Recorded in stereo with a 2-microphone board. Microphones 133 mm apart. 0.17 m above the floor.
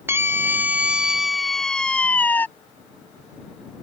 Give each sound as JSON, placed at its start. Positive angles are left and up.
{"t": 0.1, "sound": "a scream", "side_deg": -20}